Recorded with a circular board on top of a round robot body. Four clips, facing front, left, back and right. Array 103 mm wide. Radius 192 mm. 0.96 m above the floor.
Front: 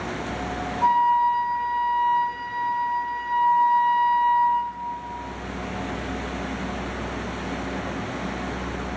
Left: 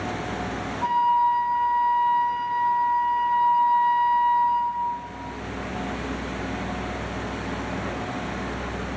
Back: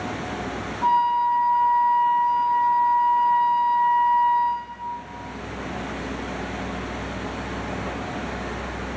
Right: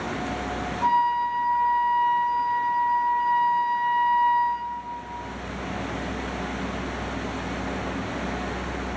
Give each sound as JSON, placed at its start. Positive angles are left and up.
{"t": 0.8, "sound": "a flute", "azimuth_deg": 0, "distance_m": 0.7}